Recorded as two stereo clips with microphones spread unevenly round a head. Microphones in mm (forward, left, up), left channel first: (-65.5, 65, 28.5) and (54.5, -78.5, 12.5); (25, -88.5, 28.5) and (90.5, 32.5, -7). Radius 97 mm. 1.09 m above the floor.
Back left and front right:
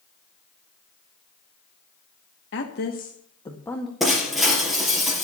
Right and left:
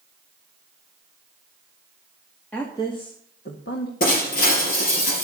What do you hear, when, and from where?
2.5 s a woman speaking: 155° left, 2 m; by 3.9 s 140° right, 2 m
4.0 s breaking glass: 140° right, 3.5 m